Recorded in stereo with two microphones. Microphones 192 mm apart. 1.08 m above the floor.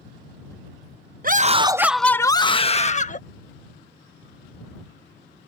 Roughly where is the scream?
Right.